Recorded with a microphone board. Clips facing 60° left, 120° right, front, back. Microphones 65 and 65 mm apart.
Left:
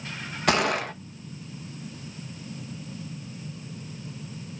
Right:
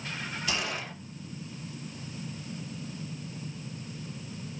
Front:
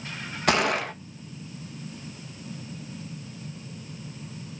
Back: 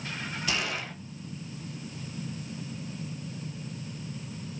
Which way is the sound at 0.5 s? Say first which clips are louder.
Left 12 dB, front 11 dB; 30° left.